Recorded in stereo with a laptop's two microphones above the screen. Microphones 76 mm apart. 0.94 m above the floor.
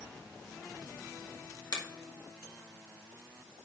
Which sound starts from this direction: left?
A finger snap, at 1.7 s.